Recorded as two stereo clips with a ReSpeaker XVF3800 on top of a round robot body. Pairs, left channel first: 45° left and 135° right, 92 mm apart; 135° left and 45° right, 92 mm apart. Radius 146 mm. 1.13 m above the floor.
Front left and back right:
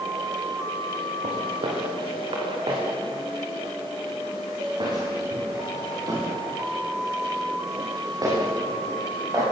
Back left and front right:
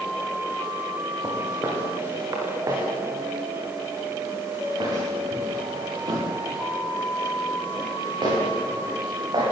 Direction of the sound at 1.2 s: 110° right.